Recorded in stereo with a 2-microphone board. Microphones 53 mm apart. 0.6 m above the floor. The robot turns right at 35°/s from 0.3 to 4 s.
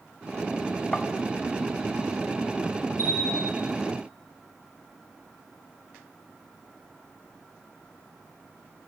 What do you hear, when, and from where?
0.9 s tapping: 20° left (ahead or behind), 1.7 m; by 1.1 s 15° left (ahead or behind), 1.7 m
3.0 s a bell: 40° left (ahead or behind), 7.5 m; by 3.6 s 60° left (ahead or behind), 7.5 m